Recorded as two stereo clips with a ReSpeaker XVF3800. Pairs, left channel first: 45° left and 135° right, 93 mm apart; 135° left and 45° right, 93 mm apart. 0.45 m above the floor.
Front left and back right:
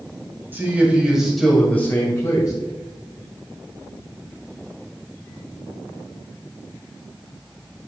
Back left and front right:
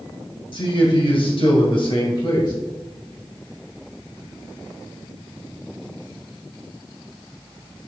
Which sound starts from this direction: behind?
A man speaking, at 0.5 s.